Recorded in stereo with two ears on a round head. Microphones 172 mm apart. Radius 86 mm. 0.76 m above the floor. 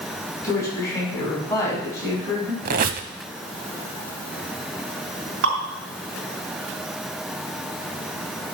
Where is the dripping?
75° right (ahead or behind), 5 m.